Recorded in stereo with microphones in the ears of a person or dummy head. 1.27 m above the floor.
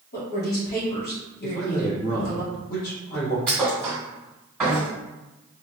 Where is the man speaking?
55° left (ahead or behind), 1.3 m.